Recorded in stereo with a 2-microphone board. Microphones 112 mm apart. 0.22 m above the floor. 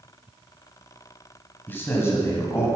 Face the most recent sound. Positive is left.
turn(degrees=30)  # may be behind; listen again after turning